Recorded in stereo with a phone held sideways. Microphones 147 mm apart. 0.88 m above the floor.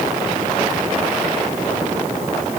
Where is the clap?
No clap in this recording.